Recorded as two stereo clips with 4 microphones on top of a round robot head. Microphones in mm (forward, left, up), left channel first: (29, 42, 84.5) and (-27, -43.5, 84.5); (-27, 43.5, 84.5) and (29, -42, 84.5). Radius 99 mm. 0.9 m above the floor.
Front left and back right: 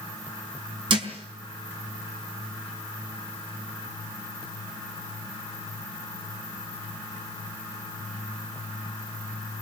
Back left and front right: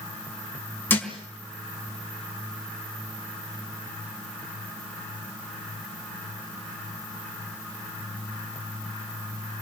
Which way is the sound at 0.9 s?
165° right.